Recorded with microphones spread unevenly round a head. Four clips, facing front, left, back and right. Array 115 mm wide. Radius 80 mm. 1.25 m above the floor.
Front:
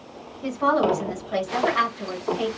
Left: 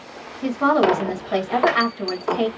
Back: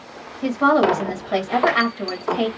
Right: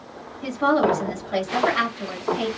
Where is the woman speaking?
145° left, 2.5 m.